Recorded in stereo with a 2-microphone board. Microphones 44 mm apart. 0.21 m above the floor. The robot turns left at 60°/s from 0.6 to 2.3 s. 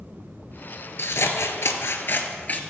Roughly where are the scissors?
Behind left.